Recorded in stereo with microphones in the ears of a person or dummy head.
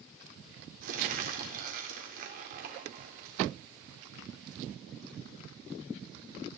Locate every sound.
0.8 s crumpling: 45° right (ahead or behind), 1.5 m